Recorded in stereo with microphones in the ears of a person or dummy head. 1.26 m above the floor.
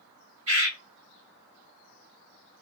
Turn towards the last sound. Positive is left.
turn(degrees=-60)  # may be behind; listen again after turning